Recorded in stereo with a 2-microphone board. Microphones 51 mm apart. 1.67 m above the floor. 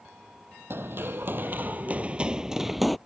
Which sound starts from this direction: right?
Running footsteps, at 0.7 s.